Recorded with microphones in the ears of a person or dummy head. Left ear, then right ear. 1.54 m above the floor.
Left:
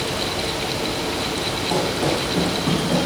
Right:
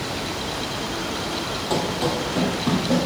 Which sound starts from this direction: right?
Running footsteps, at 1.7 s.